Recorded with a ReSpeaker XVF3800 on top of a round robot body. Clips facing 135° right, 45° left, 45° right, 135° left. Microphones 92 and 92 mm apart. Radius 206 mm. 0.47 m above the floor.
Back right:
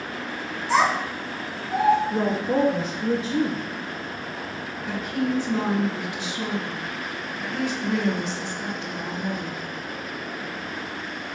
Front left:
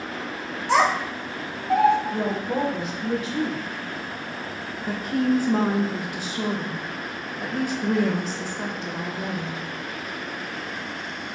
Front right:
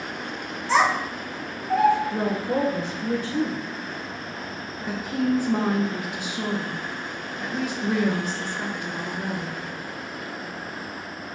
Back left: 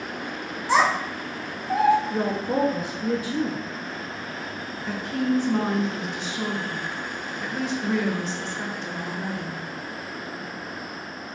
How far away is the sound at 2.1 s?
About 1.2 m.